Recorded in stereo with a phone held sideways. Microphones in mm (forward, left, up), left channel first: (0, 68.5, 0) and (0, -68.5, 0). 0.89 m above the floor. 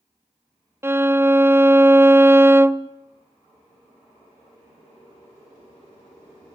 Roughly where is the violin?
Centre.